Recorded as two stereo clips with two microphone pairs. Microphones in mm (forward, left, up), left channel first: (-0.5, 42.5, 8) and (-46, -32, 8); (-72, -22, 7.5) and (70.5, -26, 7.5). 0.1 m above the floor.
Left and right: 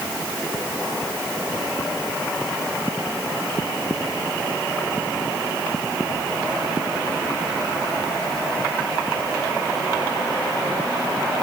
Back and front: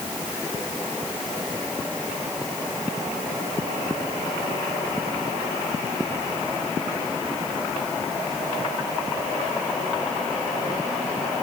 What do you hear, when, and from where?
Only background noise.